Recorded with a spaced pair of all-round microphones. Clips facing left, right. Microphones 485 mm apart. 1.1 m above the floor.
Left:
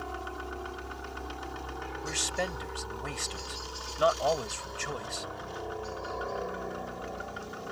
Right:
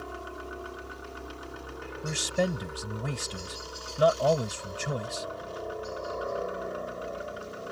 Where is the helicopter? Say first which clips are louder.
Even; 5° left (ahead or behind).